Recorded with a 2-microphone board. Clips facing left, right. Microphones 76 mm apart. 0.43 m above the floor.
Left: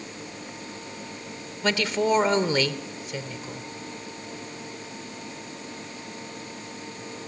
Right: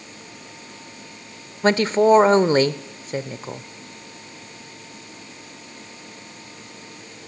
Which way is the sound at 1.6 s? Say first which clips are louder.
Right 8 dB; 40° right (ahead or behind).